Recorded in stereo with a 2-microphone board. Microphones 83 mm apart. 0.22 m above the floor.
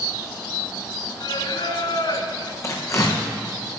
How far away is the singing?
About 1.3 m.